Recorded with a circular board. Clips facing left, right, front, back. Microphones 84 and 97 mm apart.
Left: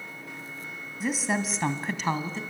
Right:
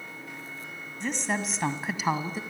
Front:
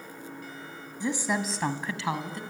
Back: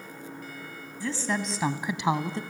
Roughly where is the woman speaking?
Ahead.